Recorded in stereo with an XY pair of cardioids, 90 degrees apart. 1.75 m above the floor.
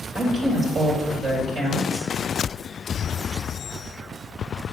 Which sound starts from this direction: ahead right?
A woman speaking, at 0.1 s.